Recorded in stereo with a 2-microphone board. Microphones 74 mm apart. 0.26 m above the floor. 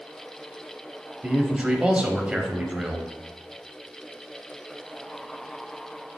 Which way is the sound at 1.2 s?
15° right (ahead or behind).